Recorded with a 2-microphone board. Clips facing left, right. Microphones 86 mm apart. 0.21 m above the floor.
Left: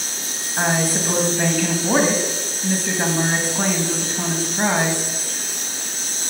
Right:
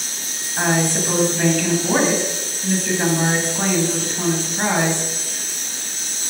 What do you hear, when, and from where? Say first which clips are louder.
0.6 s a woman speaking: right 1 dB; 5° left (ahead or behind), 1.5 m